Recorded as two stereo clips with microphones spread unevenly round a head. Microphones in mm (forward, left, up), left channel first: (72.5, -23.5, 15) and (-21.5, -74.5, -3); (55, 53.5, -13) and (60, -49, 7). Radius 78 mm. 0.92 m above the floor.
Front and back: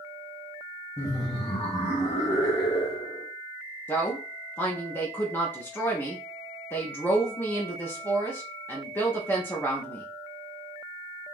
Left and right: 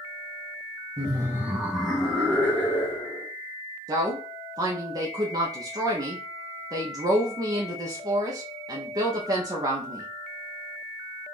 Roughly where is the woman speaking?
Ahead right.